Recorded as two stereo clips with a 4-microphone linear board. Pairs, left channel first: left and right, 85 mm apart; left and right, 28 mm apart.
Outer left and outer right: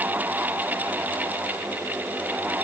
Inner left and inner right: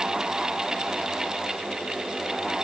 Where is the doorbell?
No doorbell in this recording.